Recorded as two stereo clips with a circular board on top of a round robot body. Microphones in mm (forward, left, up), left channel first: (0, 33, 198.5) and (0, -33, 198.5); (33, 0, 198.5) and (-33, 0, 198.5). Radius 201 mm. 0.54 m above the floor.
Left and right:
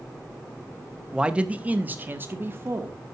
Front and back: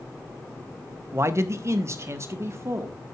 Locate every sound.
1.1 s a man speaking: 165° right, 1.4 m; by 3.0 s 140° right, 2.5 m